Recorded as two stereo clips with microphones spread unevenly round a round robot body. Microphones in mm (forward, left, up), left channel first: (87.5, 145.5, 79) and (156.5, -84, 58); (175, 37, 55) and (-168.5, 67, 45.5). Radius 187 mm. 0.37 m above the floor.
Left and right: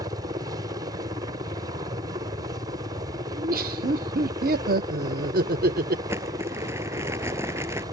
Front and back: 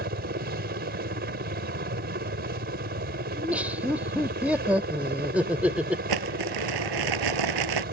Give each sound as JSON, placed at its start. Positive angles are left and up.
{"t": 0.0, "sound": "a helicopter", "azimuth_deg": -135}
{"t": 3.3, "sound": "laughter", "azimuth_deg": -100}
{"t": 6.1, "sound": "crumpling", "azimuth_deg": -155}